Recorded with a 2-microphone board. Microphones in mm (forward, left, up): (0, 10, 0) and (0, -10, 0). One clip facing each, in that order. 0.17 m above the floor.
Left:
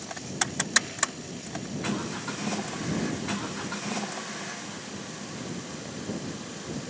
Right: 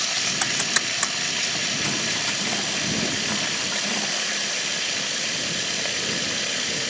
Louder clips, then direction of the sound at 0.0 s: Right 9 dB; 60° right (ahead or behind).